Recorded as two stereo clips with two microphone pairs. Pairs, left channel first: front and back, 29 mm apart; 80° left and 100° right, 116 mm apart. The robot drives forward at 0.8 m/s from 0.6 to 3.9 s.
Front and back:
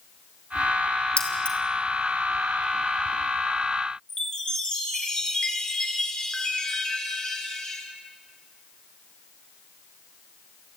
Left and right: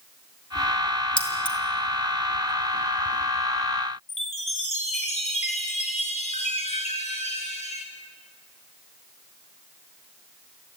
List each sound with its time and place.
1.2 s keys jangling: 40° left, 3 m
4.1 s a chime: 65° left, 3.5 m